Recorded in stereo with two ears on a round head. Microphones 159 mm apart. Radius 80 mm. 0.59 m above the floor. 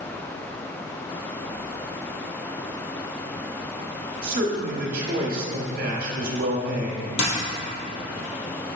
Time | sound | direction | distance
4.2 | a man speaking | 50° right (ahead or behind) | 1.5 m
7.2 | a dropped coin | 75° left (ahead or behind) | 2.5 m